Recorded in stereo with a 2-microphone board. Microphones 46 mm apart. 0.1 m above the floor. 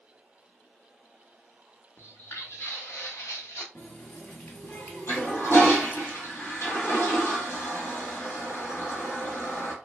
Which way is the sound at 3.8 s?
45° left (ahead or behind).